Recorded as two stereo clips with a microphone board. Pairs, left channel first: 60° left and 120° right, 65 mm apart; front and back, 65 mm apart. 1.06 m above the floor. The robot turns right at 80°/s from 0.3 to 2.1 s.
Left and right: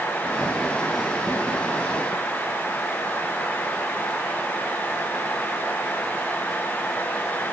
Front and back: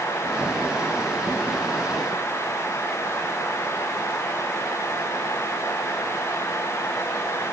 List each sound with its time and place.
Only background noise.